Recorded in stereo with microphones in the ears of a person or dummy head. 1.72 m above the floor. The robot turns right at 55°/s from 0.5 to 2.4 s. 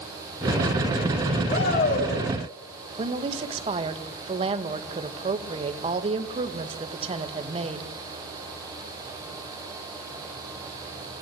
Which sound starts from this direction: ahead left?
A shout, at 1.5 s.